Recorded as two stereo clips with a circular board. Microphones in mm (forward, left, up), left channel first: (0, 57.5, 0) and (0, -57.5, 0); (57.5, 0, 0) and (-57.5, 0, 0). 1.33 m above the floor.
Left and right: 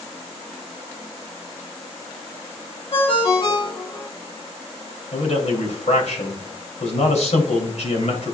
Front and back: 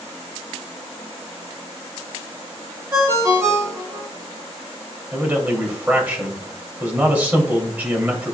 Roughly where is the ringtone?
Behind left.